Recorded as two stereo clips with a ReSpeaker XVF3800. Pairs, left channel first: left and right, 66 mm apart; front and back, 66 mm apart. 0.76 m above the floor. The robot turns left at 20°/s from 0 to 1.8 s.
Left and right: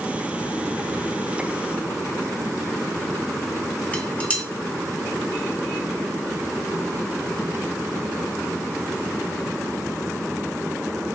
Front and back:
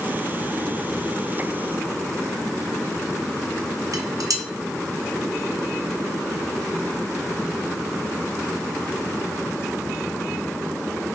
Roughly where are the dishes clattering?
Behind.